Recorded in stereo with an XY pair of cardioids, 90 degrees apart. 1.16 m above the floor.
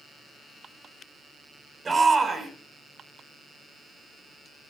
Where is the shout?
35° right, 7 m.